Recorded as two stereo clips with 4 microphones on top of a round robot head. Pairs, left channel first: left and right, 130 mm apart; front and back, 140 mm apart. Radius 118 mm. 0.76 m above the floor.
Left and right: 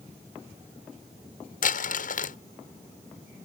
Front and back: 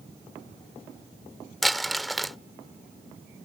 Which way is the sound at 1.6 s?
90° left.